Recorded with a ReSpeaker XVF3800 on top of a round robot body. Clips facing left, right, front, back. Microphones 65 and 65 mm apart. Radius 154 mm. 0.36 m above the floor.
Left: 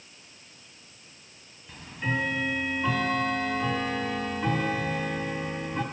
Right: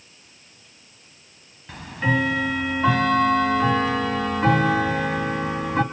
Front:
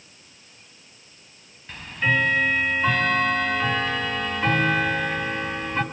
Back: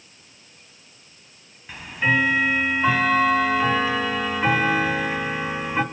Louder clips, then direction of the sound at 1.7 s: Right 7 dB, back 1 dB; 100° right.